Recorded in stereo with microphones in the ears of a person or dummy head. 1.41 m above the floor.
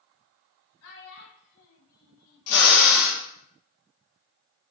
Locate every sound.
0.8 s a child speaking: 85° left, 2.5 m; by 3.1 s 60° left (ahead or behind), 1.2 m
2.5 s a drill: 75° left (ahead or behind), 3.5 m